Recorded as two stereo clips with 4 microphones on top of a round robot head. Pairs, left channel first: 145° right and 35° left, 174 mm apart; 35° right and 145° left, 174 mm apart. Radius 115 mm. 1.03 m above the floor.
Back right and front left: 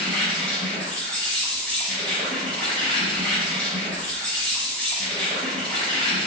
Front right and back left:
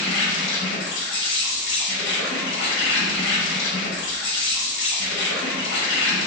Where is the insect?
60° right, 0.7 m.